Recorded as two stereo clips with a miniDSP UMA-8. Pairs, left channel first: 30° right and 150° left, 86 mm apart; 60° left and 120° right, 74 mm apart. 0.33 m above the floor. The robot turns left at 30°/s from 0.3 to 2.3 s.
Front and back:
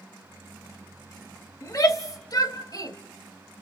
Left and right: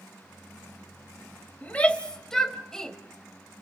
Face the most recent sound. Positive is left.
turn(degrees=-20)